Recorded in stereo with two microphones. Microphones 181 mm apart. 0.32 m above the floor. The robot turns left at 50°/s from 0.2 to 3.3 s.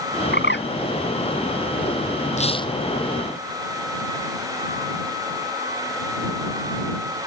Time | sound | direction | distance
0.3 | a bird | 65° left (ahead or behind) | ?
2.4 | tearing paper | 40° left (ahead or behind) | ?